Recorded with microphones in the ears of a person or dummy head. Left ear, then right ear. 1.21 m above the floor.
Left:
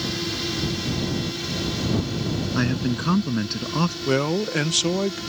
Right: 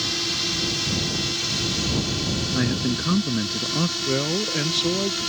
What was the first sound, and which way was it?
A drone, 25° right (ahead or behind).